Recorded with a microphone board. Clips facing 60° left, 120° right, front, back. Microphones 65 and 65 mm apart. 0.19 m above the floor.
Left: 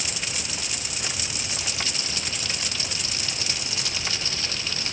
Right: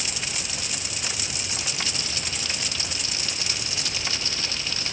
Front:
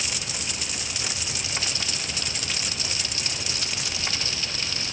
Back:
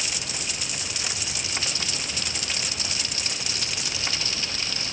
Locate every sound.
Only background noise.